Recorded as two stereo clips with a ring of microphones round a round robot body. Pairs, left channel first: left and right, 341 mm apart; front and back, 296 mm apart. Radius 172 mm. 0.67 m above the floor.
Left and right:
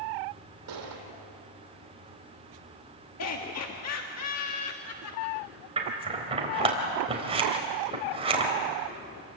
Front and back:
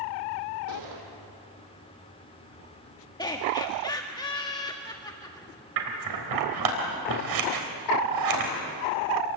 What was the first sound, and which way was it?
A gunshot, 135° right.